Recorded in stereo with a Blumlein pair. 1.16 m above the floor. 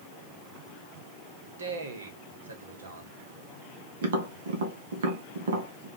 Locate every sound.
1.6 s a man speaking: 65° right, 1.4 m
4.0 s tapping: 60° right, 1.2 m